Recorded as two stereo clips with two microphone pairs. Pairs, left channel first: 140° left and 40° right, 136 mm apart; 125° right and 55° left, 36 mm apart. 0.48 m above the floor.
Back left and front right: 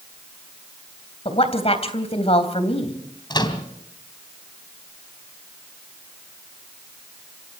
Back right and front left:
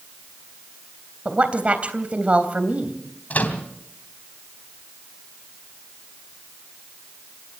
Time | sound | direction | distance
1.2 | a woman speaking | 105° left | 3 m
3.3 | a microwave | 165° right | 3 m